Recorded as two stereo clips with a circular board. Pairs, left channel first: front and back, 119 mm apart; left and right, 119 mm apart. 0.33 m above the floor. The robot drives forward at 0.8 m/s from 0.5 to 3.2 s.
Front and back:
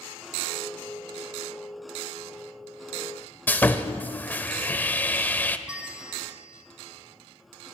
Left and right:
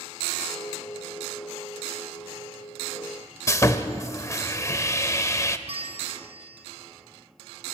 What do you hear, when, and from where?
3.5 s sawing: 60° left, 0.8 m
5.7 s a bell: 100° right, 2.5 m